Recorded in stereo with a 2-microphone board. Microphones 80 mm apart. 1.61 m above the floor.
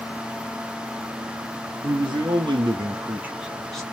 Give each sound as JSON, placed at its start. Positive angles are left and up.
{"t": 1.8, "sound": "a man speaking", "side_deg": -75, "distance_m": 1.5}